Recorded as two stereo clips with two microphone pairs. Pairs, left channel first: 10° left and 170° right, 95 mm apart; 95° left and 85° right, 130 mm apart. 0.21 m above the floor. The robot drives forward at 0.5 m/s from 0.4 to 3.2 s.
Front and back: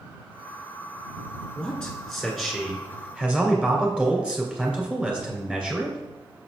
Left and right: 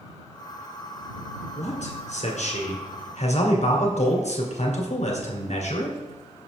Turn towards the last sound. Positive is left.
turn(degrees=110)